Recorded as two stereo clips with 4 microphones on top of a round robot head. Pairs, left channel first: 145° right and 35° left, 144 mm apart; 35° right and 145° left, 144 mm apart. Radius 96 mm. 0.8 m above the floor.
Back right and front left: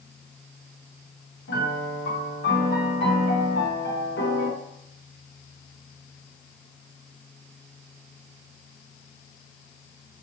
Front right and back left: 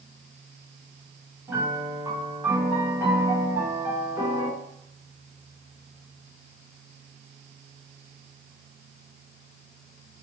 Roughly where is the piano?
Behind right.